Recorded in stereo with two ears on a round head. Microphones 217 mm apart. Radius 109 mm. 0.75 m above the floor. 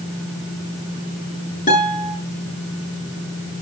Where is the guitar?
30° left (ahead or behind), 7 m.